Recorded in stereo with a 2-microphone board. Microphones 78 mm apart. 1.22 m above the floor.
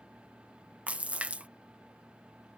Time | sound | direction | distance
0.9 | a splash | 15° right (ahead or behind) | ?